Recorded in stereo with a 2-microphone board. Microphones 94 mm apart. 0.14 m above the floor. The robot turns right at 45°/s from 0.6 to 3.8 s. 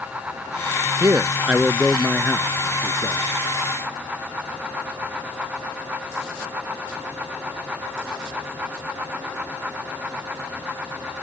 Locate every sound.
1.0 s a man speaking: 40° right; by 3.2 s 60° left